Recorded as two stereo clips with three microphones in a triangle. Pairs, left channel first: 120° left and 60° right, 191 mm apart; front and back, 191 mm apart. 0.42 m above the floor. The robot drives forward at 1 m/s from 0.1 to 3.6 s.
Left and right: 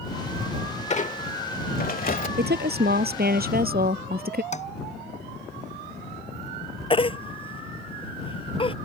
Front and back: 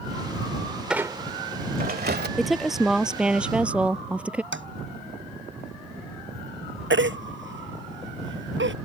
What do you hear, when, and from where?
0.9 s a squeak: 95° left; by 2.3 s 155° left
2.4 s a woman speaking: 90° right; by 4.4 s 95° right
4.5 s tapping: 175° left
6.9 s a baby crying: straight behind